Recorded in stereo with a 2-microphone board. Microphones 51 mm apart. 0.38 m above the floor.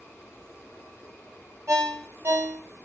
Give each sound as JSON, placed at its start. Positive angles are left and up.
{"t": 1.7, "sound": "a ringtone", "side_deg": -65, "distance_m": 1.1}